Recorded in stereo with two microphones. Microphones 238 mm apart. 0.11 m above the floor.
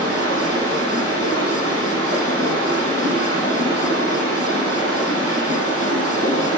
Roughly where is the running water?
Right.